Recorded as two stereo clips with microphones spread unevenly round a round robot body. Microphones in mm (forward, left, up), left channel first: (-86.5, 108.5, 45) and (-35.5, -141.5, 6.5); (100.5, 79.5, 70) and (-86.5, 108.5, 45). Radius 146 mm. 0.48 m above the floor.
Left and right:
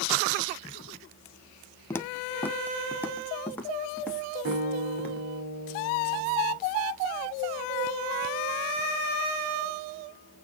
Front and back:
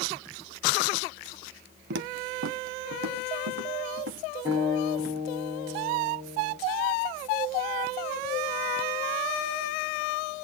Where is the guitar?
120° right, 4.5 m.